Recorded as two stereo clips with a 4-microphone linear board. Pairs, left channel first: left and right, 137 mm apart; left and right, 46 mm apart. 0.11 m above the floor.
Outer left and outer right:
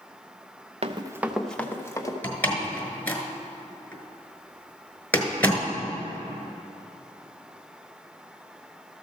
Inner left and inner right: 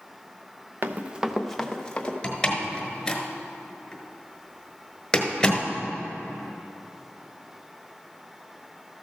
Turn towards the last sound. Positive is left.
turn(degrees=15)  # may be behind; listen again after turning